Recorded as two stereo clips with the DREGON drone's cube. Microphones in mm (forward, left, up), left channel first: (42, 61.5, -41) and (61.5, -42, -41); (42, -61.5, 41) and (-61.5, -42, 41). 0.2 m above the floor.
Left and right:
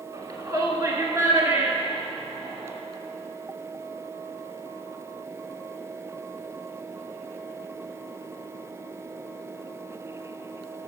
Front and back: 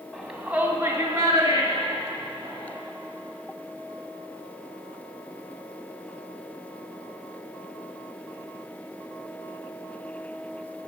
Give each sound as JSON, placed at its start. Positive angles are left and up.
{"t": 0.1, "sound": "a shout", "azimuth_deg": -105, "distance_m": 1.3}